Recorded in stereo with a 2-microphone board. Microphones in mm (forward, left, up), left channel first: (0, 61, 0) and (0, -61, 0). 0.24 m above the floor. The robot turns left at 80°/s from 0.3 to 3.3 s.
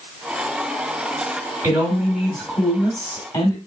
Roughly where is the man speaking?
Behind right.